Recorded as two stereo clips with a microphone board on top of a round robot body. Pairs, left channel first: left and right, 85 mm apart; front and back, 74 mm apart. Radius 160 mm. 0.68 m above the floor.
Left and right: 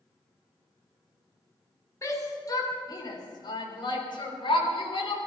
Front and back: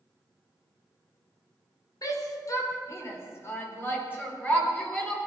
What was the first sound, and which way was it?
A shout, 35° left.